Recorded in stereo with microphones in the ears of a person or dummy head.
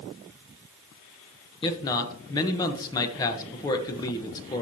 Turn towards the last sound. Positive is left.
turn(degrees=20)  # may be behind; listen again after turning